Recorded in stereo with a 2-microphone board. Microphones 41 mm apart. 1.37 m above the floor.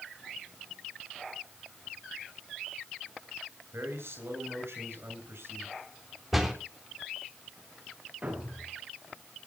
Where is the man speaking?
85° right, 8 m.